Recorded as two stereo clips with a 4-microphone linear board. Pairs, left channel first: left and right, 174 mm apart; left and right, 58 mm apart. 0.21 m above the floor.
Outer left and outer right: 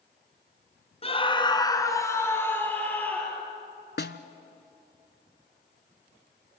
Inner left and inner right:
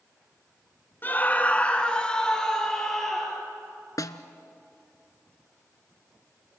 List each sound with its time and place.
1.0 s a scream: 30° left (ahead or behind), 1.7 m; by 3.4 s 5° left (ahead or behind), 4.5 m
4.0 s a snare drum: 65° left (ahead or behind), 0.9 m